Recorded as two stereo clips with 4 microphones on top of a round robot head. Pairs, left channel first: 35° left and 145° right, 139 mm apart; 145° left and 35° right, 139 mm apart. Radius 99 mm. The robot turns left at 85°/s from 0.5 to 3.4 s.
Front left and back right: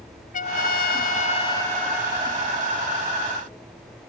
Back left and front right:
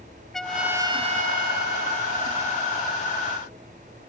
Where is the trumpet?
60° left; by 3.0 s 150° right.